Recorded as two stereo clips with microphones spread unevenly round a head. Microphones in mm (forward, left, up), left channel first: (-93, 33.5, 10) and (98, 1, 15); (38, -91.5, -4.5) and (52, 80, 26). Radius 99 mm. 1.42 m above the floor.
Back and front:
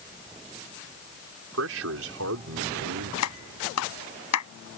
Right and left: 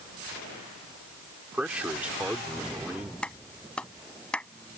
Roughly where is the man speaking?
Ahead.